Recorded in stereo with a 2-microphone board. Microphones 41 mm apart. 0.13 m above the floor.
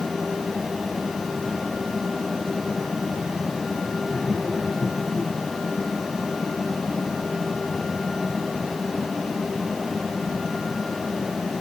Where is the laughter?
Centre (ahead or behind), 5 m.